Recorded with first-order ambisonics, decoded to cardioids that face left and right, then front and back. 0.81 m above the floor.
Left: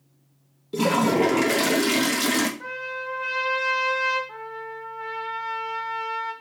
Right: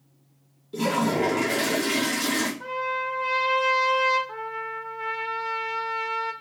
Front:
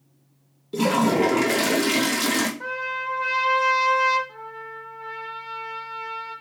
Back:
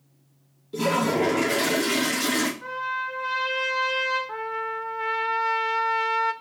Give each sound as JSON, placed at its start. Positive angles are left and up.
{"t": 0.7, "sound": "a toilet flushing", "azimuth_deg": 50, "distance_m": 0.7}
{"t": 2.6, "sound": "a trumpet", "azimuth_deg": 5, "distance_m": 1.6}
{"t": 4.3, "sound": "a trumpet", "azimuth_deg": -165, "distance_m": 0.6}